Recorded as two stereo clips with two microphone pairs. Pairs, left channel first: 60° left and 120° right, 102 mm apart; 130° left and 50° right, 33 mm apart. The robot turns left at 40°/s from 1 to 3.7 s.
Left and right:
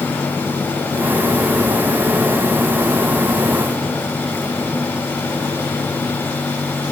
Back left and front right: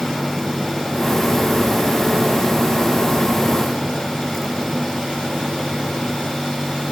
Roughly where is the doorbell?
I don't hear a doorbell.